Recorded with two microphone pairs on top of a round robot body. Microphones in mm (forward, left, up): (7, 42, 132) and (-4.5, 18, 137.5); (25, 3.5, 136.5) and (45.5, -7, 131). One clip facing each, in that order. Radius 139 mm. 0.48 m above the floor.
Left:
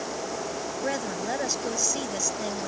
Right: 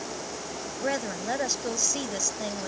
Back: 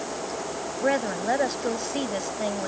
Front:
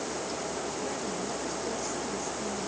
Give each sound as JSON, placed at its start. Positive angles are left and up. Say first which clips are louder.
{"t": 0.8, "sound": "a woman speaking", "louder": "right 1 dB, back 9 dB", "azimuth_deg": 160}